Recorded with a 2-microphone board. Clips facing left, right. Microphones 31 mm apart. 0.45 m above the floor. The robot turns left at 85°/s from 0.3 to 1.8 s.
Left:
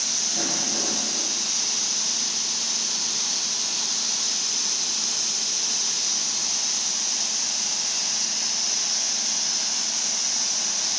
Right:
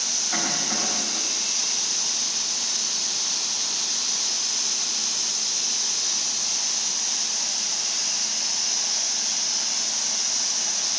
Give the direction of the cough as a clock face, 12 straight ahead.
2 o'clock.